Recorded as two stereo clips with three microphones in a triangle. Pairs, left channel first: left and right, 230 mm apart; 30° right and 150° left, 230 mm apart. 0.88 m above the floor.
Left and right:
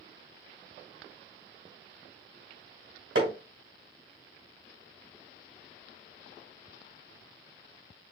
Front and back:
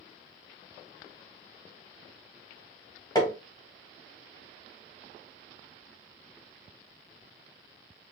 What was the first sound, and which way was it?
Hammering, 105° right.